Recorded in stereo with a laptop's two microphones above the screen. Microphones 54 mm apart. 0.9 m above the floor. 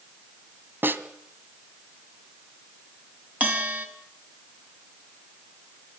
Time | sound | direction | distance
0.8 | a snare drum | 40° right (ahead or behind) | 2.0 m
3.4 | a bell | 25° right (ahead or behind) | 4.5 m